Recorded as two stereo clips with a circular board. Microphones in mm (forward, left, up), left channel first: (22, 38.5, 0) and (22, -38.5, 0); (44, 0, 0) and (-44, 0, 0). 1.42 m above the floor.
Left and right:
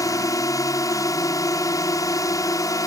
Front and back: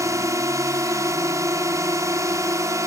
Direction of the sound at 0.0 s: 130° left.